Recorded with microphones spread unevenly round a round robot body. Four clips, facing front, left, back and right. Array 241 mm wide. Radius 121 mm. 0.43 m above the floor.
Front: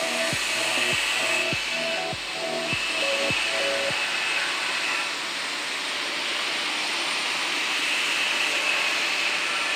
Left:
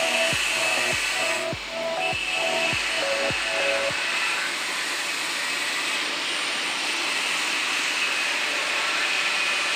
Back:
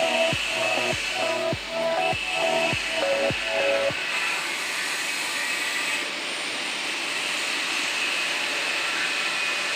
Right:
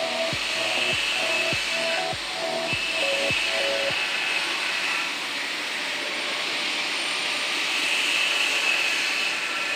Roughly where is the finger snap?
I don't hear a finger snap.